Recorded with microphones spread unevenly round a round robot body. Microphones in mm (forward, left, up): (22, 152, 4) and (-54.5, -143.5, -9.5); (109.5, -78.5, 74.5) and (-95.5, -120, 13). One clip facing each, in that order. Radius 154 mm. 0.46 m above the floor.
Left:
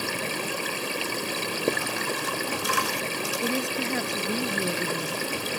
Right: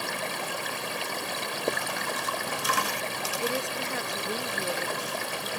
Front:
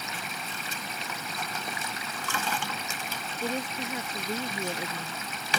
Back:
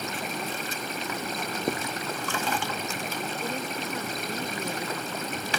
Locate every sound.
0.0 s running water: 135° left
1.7 s writing: 145° left
3.4 s a woman speaking: 90° left